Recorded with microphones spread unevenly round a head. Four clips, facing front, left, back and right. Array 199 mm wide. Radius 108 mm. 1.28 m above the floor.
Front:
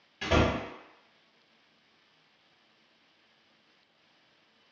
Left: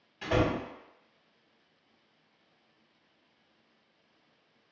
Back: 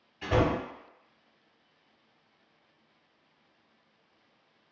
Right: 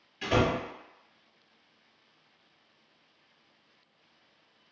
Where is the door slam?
5° right, 1.1 m.